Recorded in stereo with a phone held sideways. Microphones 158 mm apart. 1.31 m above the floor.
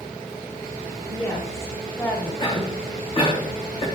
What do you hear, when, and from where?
1.1 s a woman speaking: 25° left (ahead or behind), 3.5 m; by 2.3 s 15° left (ahead or behind), 3 m
2.4 s a cough: 35° left (ahead or behind), 3 m